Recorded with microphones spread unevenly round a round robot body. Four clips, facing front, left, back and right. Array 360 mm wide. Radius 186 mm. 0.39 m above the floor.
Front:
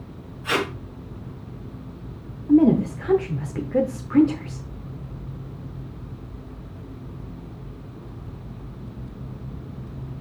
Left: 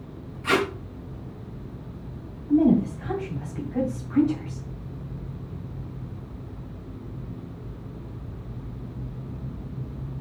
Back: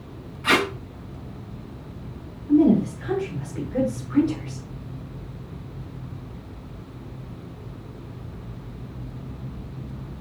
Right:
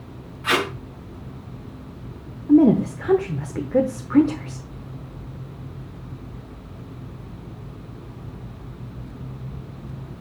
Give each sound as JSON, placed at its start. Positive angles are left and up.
{"t": 0.4, "sound": "tape being pulled", "azimuth_deg": -175, "distance_m": 3.5}
{"t": 2.5, "sound": "a woman speaking", "azimuth_deg": -70, "distance_m": 1.1}